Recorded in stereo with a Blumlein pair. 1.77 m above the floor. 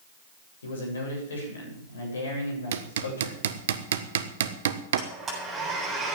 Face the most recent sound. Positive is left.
turn(degrees=-25)